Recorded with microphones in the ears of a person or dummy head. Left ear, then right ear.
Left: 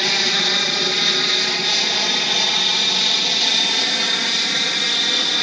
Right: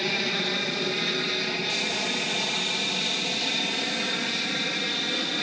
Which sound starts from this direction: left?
An aircraft, at 0.0 s.